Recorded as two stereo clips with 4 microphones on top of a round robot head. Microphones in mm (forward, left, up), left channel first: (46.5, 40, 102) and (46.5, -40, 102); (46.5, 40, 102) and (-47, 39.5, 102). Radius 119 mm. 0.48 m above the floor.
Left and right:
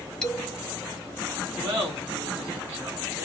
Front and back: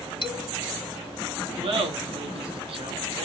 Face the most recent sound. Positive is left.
turn(degrees=-150)